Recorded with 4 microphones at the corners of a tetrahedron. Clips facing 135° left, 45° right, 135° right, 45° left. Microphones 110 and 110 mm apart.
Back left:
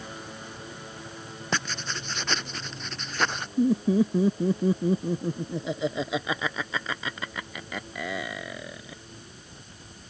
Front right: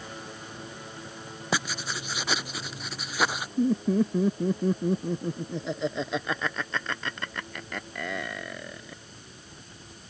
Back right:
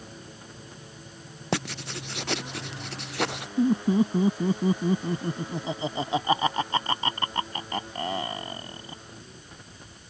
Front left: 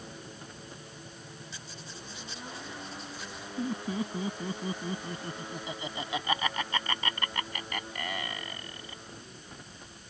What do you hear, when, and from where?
1.5 s writing: 125° right
3.6 s laughter: 145° right